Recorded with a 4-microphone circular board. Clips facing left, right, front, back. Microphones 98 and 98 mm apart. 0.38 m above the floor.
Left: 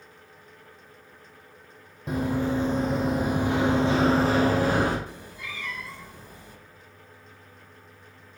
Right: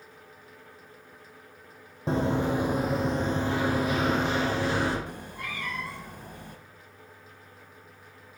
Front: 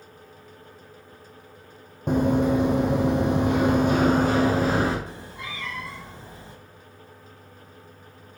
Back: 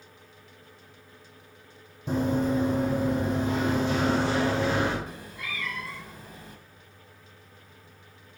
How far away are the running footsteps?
About 1.2 m.